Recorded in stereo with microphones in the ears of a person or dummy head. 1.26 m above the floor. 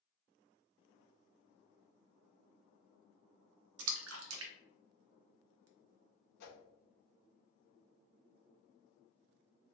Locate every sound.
3.8 s a splash: 80° right, 0.6 m
6.4 s a whoosh: 60° left (ahead or behind), 0.8 m